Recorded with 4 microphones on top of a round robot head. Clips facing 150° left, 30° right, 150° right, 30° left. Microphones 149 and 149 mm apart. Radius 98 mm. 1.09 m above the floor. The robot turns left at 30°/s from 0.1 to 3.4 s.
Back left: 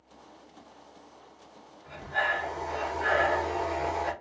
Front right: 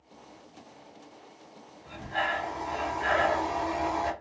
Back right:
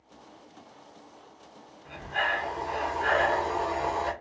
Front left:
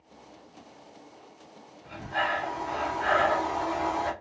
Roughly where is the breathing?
Ahead left.